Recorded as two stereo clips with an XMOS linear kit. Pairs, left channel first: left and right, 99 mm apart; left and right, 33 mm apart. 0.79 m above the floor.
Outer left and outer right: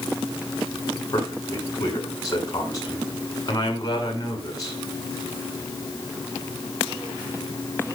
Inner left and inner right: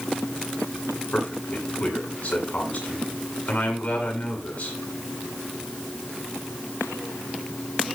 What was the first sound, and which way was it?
A man speaking, 40° left (ahead or behind).